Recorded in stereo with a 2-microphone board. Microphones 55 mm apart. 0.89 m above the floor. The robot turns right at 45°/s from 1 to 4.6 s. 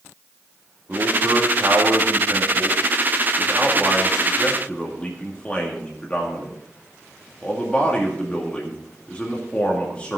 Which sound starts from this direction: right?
A man speaking, at 0.9 s.